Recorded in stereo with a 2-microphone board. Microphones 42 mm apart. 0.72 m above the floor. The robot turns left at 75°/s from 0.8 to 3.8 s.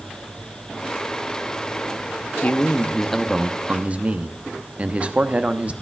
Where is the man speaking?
55° left, 0.9 m; by 5.7 s 45° right, 0.9 m.